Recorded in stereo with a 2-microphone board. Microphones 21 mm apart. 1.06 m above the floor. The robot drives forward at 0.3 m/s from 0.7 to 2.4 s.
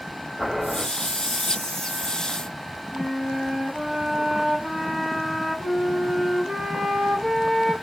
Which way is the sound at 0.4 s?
20° left (ahead or behind).